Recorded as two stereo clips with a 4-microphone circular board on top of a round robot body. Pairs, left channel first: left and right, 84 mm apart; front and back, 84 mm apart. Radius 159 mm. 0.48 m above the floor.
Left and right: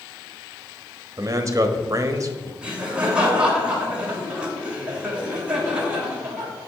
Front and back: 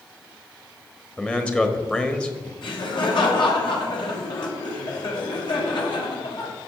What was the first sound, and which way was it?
A man speaking, 70° right.